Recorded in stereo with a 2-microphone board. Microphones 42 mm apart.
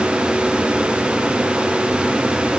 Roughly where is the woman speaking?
I don't hear a woman speaking.